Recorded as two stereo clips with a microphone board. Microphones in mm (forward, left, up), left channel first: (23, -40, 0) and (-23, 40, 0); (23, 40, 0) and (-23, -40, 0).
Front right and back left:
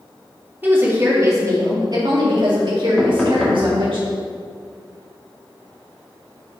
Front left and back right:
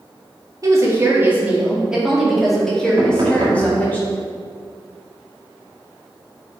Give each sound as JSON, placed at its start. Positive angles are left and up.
{"t": 0.6, "sound": "a woman speaking", "azimuth_deg": -170, "distance_m": 2.0}
{"t": 3.0, "sound": "knocking", "azimuth_deg": -140, "distance_m": 1.9}